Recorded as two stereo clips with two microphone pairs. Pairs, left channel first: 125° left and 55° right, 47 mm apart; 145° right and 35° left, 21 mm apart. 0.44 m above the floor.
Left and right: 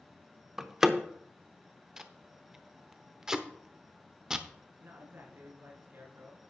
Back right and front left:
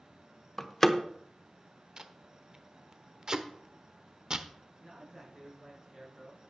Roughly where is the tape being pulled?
Ahead.